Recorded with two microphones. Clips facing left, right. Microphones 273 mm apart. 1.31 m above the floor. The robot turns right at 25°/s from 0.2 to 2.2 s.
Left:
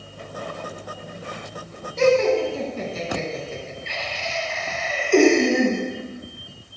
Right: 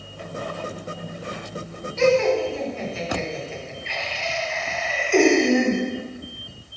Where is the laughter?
35° left (ahead or behind), 1.4 m; by 5.8 s 45° left (ahead or behind), 1.4 m.